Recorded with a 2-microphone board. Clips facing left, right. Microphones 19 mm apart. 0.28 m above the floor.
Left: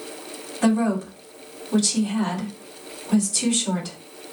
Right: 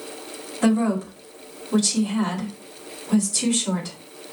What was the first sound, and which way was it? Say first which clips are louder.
A woman speaking: even; 5° left (ahead or behind).